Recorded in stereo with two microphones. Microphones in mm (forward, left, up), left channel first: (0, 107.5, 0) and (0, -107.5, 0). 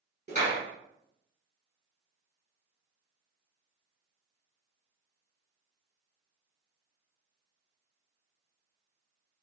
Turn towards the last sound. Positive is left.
turn(degrees=-30)  # may be behind; listen again after turning